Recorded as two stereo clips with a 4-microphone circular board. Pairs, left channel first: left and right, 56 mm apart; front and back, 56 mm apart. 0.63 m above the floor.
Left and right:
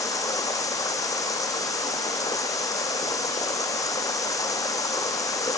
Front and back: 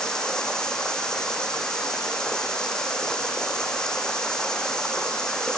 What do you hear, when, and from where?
0.0 s running water: 80° left